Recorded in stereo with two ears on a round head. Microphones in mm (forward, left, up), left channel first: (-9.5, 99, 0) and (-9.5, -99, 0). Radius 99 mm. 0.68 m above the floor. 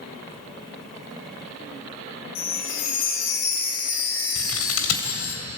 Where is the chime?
60° left (ahead or behind), 5 m.